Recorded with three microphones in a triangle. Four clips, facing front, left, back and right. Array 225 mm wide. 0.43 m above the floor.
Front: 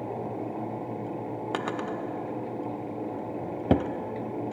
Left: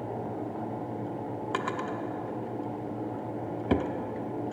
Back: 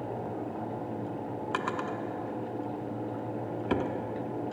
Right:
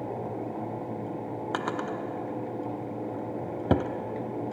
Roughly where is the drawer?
Ahead right.